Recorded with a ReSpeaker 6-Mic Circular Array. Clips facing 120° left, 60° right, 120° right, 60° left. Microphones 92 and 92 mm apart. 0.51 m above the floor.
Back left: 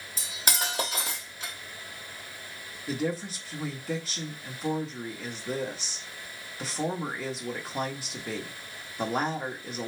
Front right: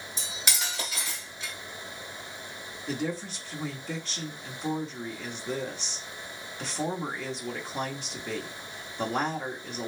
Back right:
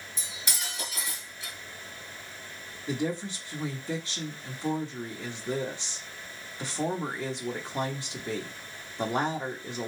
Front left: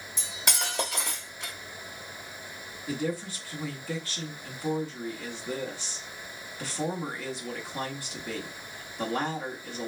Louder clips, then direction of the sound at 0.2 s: Back left 3 dB, front left 6 dB; 80° left.